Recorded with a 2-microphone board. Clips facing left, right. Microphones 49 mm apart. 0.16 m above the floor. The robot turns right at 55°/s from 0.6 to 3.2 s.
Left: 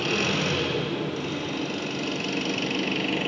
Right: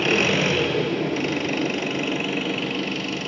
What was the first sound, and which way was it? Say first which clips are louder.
An engine running: right 5 dB; 125° right.